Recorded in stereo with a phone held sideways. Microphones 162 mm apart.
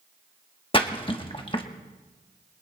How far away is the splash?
About 1.2 m.